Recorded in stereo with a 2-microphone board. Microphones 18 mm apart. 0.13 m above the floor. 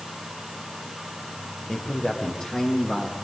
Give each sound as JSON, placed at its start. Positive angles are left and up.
{"t": 1.7, "sound": "a man speaking", "side_deg": 65, "distance_m": 6.0}